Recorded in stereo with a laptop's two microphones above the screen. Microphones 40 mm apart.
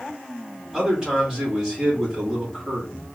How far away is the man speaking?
About 2 m.